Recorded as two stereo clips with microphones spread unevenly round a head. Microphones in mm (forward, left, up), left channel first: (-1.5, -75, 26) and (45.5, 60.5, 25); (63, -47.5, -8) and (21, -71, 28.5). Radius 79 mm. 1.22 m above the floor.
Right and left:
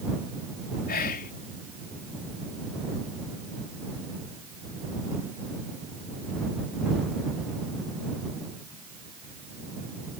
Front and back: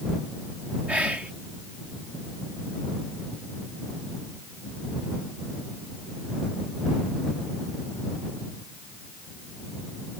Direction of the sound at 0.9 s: 85° right.